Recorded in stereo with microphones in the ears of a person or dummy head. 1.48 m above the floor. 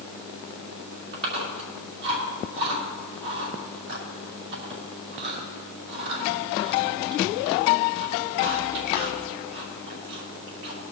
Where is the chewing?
65° right (ahead or behind), 5 m.